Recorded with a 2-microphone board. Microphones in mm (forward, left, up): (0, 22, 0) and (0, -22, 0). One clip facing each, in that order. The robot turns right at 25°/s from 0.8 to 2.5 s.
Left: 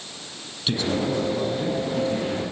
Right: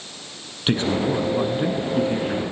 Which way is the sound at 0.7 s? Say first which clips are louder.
Right 3 dB; 105° right.